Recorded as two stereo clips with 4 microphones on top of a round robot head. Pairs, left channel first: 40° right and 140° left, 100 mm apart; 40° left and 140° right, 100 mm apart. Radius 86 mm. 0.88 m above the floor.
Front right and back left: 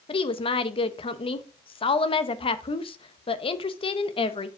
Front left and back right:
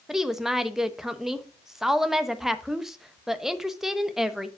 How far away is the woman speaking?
About 0.9 m.